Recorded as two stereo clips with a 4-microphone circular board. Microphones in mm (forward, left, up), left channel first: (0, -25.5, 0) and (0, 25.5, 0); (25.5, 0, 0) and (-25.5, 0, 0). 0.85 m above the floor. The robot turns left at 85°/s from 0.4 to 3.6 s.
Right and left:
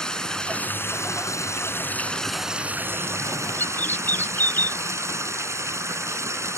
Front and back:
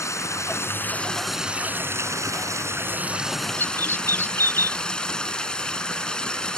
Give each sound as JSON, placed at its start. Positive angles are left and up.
{"t": 0.0, "sound": "running water", "azimuth_deg": -10}
{"t": 3.6, "sound": "a bird", "azimuth_deg": -40}